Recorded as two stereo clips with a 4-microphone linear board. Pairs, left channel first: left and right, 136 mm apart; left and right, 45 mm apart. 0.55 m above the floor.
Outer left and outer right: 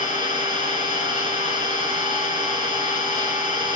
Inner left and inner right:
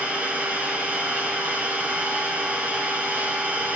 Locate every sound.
0.0 s an engine running: 40° right (ahead or behind), 5 m